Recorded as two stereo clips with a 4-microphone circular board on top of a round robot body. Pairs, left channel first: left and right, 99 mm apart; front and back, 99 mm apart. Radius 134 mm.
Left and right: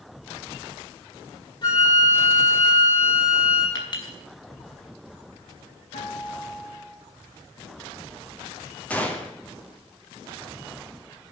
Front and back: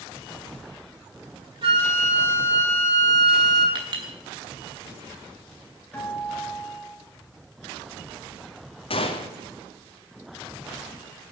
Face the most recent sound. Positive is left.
turn(degrees=15)